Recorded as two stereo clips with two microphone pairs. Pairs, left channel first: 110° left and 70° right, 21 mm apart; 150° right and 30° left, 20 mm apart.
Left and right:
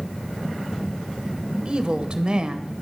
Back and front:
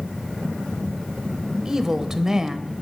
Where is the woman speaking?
35° right, 1.2 m.